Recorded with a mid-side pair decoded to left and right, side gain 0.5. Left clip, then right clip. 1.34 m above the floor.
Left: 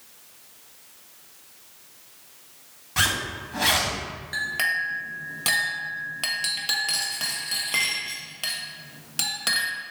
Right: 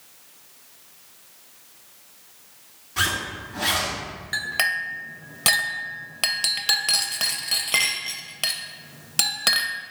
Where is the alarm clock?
I don't hear an alarm clock.